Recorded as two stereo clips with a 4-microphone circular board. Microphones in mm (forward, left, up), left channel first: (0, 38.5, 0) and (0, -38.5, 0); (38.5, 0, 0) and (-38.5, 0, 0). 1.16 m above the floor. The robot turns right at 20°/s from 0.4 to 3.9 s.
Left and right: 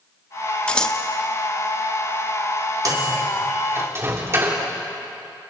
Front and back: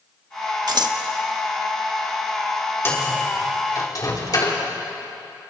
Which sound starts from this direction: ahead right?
A microwave, at 2.9 s.